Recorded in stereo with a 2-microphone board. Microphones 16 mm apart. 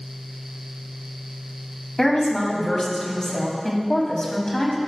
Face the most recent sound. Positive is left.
turn(degrees=40)  # may be behind; listen again after turning